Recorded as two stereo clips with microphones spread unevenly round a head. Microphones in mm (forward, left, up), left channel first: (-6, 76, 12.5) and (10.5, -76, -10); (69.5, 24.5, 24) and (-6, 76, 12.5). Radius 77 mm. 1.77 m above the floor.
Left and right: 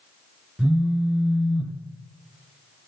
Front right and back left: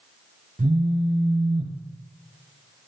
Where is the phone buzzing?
170° right, 0.6 m.